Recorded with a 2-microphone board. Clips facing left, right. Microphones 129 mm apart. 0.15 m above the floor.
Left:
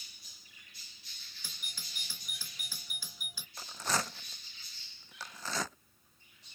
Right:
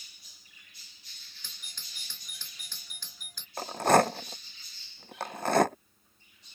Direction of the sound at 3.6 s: 60° right (ahead or behind).